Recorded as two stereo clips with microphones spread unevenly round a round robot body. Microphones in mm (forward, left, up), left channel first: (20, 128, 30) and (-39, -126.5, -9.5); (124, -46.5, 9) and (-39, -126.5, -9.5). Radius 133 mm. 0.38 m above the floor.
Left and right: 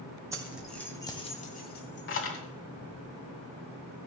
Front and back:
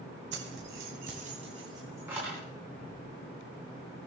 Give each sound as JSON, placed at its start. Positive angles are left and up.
{"t": 0.3, "sound": "keys jangling", "azimuth_deg": -175, "distance_m": 2.0}